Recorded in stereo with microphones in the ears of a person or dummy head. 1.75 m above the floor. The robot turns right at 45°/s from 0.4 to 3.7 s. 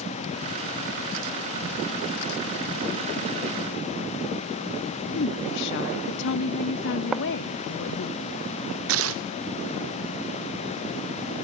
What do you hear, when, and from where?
5.2 s a woman speaking: 55° left (ahead or behind), 0.6 m
7.1 s writing: 10° right (ahead or behind), 0.6 m
8.9 s tearing paper: 70° right (ahead or behind), 0.5 m